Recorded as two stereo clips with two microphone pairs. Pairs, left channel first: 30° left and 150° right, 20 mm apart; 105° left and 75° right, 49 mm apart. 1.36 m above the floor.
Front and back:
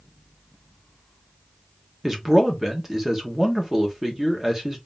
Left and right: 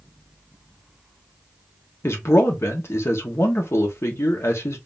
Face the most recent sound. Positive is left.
turn(degrees=130)